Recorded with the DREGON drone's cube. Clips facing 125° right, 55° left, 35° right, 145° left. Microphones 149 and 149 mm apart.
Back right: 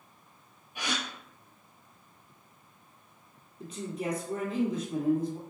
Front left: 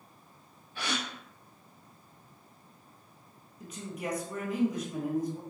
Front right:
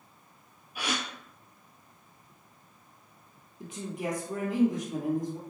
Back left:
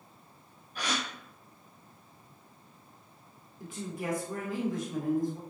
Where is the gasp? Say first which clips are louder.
Even, front right 1 dB; 95° right, 1.2 m.